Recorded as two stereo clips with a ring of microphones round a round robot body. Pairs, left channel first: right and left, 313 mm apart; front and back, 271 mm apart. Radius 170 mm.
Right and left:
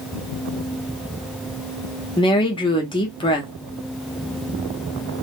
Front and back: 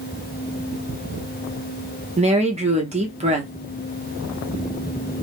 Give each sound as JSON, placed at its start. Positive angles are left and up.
{"t": 2.2, "sound": "a woman speaking", "azimuth_deg": -150, "distance_m": 0.7}